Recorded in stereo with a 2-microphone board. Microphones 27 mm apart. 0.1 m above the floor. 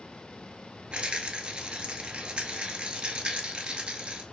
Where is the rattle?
45° right (ahead or behind), 0.5 m.